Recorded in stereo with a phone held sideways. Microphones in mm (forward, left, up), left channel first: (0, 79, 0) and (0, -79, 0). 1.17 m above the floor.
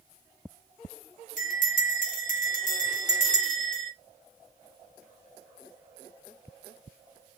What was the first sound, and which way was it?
A bell, 55° left (ahead or behind).